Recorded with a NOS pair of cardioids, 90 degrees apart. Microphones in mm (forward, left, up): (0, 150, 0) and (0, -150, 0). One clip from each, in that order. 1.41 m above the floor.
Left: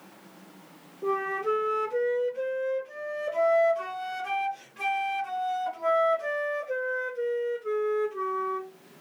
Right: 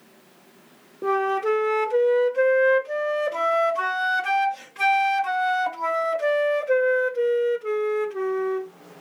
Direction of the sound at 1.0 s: 55° right.